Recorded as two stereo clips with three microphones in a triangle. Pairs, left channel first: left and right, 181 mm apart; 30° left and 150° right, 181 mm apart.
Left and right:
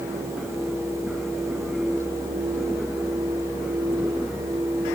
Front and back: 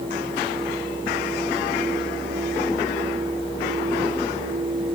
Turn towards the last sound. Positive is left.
No sound to turn to.